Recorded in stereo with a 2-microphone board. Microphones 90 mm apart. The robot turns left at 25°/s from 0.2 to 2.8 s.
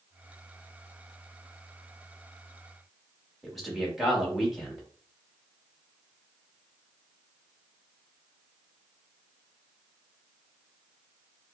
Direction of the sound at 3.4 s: Centre (ahead or behind).